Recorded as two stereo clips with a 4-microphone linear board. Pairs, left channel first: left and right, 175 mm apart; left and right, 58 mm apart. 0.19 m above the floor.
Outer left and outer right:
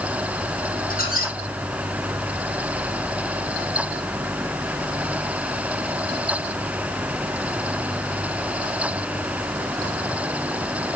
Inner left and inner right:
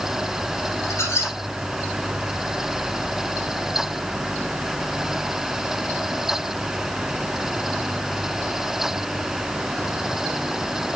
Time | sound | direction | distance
0.9 | a squeak | 50° left (ahead or behind) | 5 m